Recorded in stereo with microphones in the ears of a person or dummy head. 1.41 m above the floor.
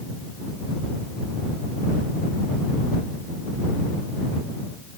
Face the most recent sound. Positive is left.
No sound to turn to.